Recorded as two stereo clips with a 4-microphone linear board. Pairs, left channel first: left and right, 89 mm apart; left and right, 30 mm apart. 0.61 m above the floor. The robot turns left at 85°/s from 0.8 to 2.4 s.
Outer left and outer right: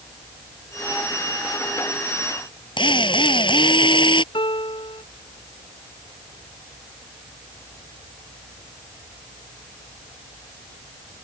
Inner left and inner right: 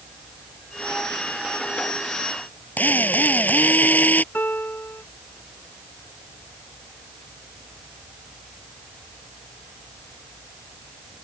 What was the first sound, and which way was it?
A drill, 65° left (ahead or behind).